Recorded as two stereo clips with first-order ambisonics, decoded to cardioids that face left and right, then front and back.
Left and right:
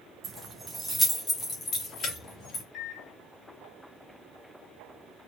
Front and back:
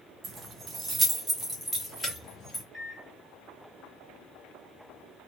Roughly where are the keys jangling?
Behind right.